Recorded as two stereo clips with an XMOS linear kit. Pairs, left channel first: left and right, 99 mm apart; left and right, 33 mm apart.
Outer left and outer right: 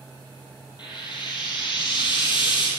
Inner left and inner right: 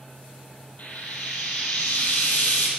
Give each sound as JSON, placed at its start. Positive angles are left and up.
{"t": 0.8, "sound": "frying", "side_deg": 50, "distance_m": 3.0}